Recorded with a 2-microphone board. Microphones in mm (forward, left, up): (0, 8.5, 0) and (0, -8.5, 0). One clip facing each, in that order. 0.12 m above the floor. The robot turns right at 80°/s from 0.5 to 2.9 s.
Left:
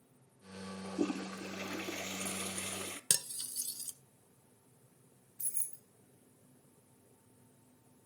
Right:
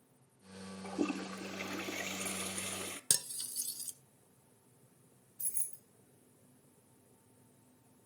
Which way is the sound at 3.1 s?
30° left (ahead or behind).